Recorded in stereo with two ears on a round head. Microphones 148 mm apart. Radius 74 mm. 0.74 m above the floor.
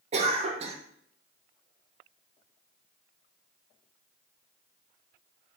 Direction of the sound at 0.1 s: 40° right (ahead or behind).